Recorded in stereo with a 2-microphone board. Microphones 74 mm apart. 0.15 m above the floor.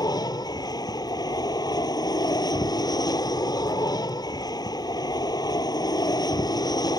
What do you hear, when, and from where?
0.0 s an aircraft: 65° left (ahead or behind)